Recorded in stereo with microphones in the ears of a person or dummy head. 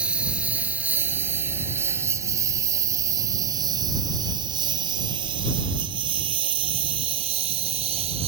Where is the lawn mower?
10° right (ahead or behind); by 8.3 s 35° right (ahead or behind).